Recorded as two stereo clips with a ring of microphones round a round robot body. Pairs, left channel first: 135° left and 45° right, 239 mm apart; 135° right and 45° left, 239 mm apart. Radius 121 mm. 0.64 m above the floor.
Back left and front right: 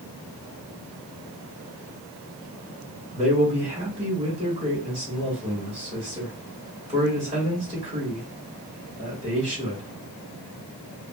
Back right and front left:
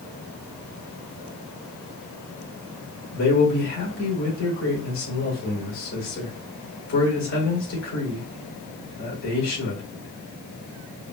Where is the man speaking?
110° right, 3 m.